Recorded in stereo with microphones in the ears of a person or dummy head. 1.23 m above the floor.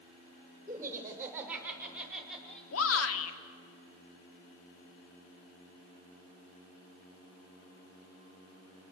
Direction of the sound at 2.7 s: 85° left.